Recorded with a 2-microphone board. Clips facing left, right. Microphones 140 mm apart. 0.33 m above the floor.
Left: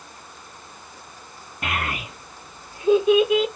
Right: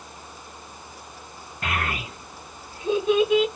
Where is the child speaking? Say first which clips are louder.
Even; 15° left (ahead or behind), 1.8 m; by 3.5 s 5° left (ahead or behind), 1.1 m.